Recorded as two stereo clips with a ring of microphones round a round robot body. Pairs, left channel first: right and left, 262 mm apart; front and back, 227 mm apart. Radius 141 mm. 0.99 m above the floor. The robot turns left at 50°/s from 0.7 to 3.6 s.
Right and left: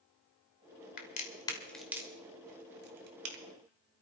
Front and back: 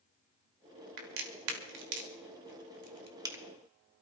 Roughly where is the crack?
Behind right.